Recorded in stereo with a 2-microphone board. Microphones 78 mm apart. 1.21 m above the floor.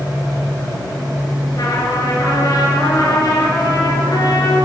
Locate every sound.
1.5 s a trumpet: 50° left (ahead or behind), 8.5 m